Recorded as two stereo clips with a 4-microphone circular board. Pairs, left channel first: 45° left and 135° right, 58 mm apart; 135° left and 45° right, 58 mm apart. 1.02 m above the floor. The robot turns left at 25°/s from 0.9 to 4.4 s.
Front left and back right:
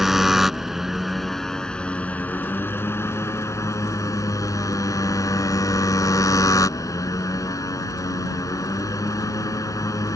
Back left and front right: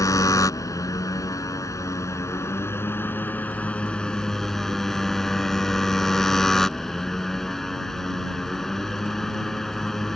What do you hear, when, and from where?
0.0 s a motorcycle: 140° left; by 10.2 s 50° left